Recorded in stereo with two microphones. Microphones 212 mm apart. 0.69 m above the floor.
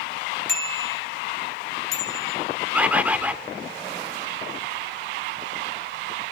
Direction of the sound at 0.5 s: 65° left (ahead or behind).